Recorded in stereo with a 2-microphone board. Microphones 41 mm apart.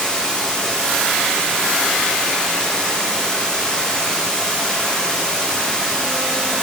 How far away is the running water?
About 10 m.